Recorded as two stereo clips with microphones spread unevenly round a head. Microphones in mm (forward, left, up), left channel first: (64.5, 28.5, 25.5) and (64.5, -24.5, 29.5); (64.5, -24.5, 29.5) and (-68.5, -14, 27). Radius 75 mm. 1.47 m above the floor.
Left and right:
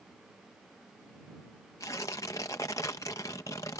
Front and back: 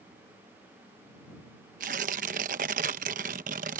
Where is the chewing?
I don't hear chewing.